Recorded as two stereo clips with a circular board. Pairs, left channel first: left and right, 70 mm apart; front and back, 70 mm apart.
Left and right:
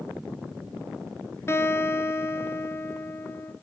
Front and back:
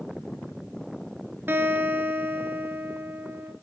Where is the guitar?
130° left, 1.2 m.